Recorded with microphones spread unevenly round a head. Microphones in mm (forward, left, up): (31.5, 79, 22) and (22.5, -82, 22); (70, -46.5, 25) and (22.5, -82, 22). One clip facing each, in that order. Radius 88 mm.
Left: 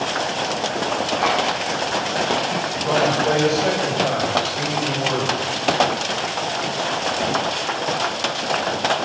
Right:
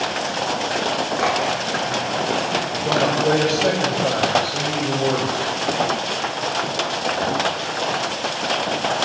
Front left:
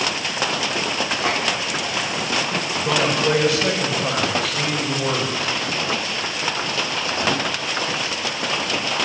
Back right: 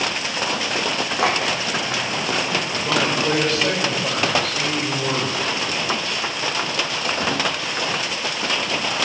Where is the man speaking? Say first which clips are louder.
Even, front left 2 dB; 45° right, 6.5 m.